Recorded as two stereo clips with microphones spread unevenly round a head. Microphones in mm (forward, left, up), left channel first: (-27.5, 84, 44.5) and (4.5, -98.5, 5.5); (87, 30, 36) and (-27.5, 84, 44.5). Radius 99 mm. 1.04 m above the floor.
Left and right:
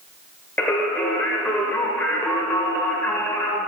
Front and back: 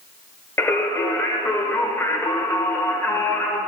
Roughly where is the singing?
Ahead left.